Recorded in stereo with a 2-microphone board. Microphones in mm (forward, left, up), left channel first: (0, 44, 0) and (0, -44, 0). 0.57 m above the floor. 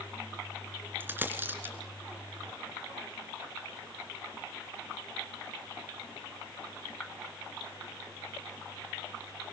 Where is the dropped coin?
25° right (ahead or behind), 3 m.